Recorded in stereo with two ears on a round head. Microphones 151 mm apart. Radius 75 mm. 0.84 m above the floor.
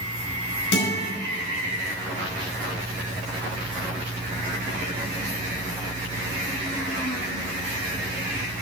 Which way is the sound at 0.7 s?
80° left.